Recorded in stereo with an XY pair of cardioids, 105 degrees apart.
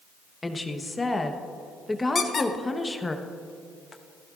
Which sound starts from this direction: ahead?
A woman speaking, at 0.4 s.